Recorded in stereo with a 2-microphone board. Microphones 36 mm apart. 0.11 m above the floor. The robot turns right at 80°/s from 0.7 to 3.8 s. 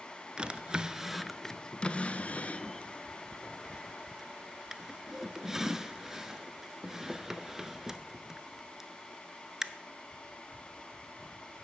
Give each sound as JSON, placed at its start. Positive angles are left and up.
{"t": 0.4, "sound": "a drawer", "side_deg": -25, "distance_m": 0.5}